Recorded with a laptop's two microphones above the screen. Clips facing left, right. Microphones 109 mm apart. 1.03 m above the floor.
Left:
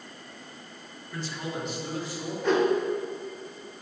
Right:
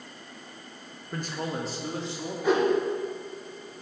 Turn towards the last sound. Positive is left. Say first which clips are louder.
# even
turn(degrees=-10)  # may be behind; listen again after turning